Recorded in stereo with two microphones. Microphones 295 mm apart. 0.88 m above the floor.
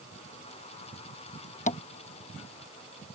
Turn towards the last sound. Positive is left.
turn(degrees=25)  # may be behind; listen again after turning